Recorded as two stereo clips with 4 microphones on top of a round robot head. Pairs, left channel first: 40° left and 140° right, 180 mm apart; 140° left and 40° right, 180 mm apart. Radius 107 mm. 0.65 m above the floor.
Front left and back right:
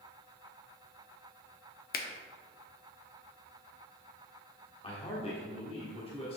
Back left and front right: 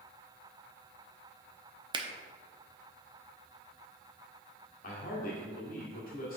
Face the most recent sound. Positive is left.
turn(degrees=100)